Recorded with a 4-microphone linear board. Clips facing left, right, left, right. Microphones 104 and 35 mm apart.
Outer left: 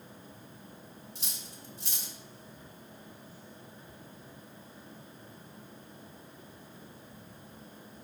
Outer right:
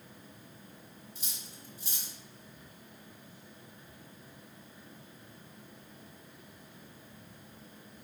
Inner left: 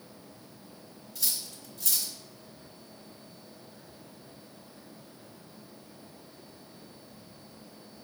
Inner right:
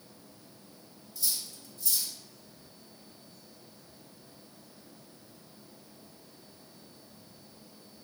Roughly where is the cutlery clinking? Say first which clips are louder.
Outer left 2 dB, inner left 1 dB; left.